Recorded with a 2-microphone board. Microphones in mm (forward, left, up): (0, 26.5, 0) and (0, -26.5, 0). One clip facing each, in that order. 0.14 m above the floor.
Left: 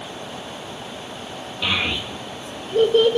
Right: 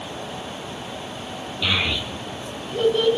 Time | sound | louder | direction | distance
1.6 | a child speaking | even | 20° left (ahead or behind) | 3 m